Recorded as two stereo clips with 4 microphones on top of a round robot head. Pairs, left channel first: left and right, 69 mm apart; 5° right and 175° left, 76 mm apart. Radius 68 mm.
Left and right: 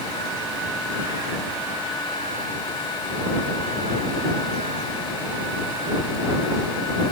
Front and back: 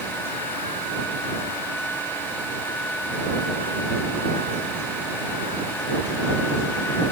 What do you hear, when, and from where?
Only background noise.